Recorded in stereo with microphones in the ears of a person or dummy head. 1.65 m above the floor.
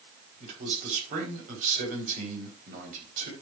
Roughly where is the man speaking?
Right.